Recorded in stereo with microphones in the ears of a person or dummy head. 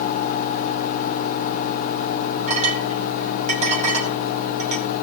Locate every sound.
2.5 s a clink: 35° right (ahead or behind), 3.5 m